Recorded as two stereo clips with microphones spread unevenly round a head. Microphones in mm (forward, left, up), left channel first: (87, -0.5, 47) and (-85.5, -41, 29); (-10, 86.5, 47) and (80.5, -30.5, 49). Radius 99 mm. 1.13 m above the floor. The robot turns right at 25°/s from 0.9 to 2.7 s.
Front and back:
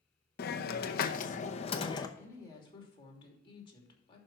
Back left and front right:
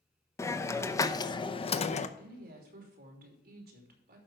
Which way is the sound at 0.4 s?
55° left.